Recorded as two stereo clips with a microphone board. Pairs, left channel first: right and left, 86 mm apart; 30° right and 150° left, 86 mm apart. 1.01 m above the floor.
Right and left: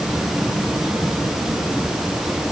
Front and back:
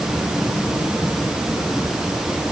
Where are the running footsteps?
No running footsteps in this recording.